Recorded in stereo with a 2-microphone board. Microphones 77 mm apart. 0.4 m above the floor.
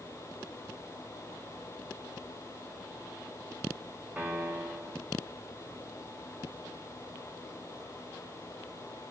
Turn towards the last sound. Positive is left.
turn(degrees=-20)  # may be behind; listen again after turning